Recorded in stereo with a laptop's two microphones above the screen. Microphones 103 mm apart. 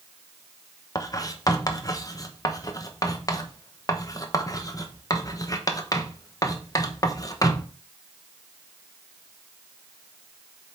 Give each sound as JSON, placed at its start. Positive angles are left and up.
{"t": 0.9, "sound": "writing", "side_deg": 35, "distance_m": 0.8}